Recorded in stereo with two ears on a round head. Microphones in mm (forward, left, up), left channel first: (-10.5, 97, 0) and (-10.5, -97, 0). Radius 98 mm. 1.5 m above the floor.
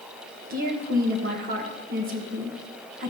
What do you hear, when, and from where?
0.5 s a woman speaking: 40° right (ahead or behind), 1.5 m